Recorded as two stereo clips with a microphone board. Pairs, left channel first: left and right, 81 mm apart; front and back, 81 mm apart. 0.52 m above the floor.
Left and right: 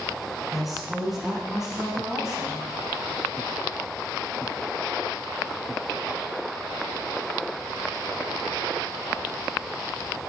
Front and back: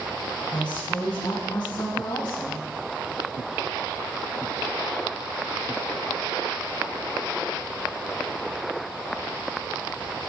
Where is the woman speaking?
Straight ahead, 3.5 m; by 2.6 s 5° right, 5 m.